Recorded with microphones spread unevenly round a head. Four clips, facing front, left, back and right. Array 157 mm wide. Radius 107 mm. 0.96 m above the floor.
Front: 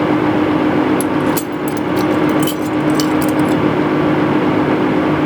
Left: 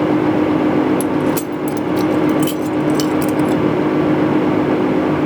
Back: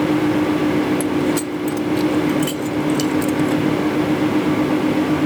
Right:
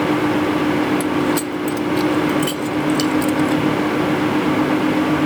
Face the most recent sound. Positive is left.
turn(degrees=70)